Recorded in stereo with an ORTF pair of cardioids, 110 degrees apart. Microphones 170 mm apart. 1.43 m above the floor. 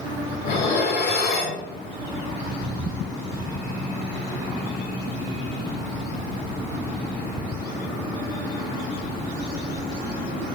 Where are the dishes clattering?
70° left, 3 m.